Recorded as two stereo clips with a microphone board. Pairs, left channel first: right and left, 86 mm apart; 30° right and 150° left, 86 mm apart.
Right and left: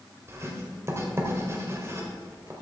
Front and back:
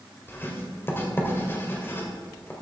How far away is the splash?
No splash in this recording.